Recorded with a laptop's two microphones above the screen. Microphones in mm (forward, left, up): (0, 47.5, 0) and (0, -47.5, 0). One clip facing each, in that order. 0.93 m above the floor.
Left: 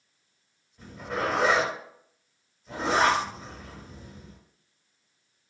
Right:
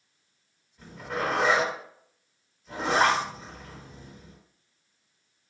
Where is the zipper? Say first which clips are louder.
Left 1 dB; 5° left (ahead or behind), 1.5 m.